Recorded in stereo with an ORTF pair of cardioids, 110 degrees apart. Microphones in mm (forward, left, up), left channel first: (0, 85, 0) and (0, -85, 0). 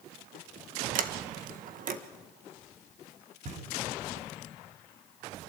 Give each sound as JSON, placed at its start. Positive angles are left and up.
{"t": 0.9, "sound": "a sliding door", "azimuth_deg": -55, "distance_m": 1.6}
{"t": 3.5, "sound": "knocking", "azimuth_deg": -50, "distance_m": 6.0}